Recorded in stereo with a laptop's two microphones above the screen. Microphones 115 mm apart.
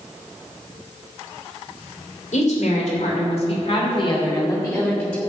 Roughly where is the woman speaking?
Left.